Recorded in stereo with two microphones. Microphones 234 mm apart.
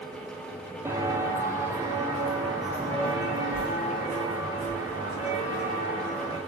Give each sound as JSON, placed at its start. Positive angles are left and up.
{"t": 0.8, "sound": "footsteps", "side_deg": -10, "distance_m": 1.0}